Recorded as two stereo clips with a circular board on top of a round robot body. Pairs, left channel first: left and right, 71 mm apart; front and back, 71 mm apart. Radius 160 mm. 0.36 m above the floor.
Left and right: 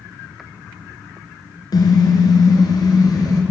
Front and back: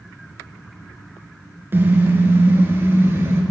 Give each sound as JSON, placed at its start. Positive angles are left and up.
{"t": 1.7, "sound": "a car horn", "azimuth_deg": 120, "distance_m": 3.5}